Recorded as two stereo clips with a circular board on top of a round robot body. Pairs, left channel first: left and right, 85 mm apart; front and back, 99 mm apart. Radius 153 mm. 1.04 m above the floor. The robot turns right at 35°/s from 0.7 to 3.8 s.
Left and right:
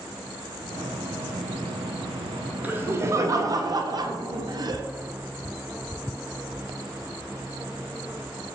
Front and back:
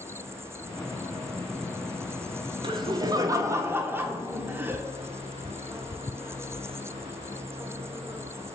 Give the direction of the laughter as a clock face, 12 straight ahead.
5 o'clock.